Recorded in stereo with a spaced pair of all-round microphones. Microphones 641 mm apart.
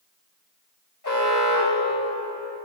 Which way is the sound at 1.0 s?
35° left (ahead or behind).